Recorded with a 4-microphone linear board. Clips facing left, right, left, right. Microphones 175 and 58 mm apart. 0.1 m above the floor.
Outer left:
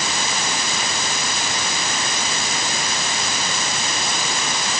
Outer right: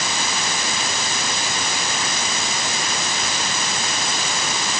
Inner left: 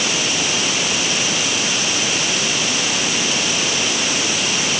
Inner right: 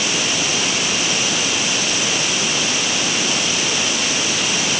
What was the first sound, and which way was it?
Only background noise.